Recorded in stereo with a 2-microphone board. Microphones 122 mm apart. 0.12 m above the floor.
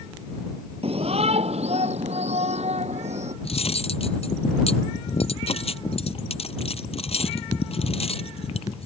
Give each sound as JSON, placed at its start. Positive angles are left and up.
{"t": 0.8, "sound": "a shout", "side_deg": -55}
{"t": 3.4, "sound": "cutlery clinking", "side_deg": 55}